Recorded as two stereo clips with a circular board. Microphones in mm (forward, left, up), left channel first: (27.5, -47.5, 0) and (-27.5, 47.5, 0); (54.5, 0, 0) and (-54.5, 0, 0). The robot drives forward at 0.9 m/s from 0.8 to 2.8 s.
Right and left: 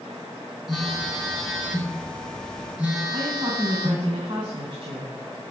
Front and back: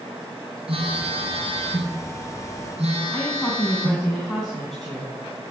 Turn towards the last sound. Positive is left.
turn(degrees=85)